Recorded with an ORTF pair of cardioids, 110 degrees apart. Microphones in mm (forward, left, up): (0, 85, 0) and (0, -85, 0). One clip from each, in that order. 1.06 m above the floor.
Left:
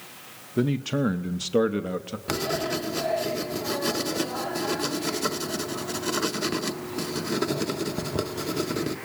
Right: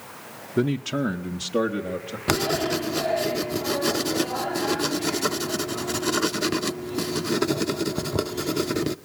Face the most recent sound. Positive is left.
turn(degrees=-40)